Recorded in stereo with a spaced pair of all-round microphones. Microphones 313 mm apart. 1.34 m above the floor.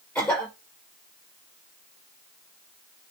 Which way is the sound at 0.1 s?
5° left (ahead or behind).